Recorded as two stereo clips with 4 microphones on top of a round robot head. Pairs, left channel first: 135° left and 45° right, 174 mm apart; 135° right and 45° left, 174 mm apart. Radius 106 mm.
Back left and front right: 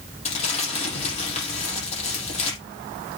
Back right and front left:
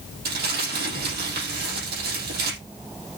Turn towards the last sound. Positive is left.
turn(degrees=85)